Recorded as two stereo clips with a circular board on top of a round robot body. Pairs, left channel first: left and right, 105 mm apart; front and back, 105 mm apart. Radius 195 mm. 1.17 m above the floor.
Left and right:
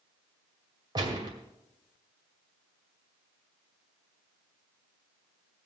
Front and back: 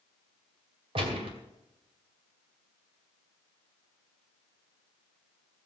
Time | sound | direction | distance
0.9 | a gunshot | 140° right | 2 m